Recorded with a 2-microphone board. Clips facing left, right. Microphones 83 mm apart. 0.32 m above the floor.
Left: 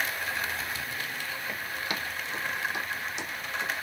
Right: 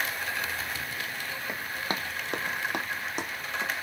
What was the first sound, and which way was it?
Running footsteps, 20° right (ahead or behind).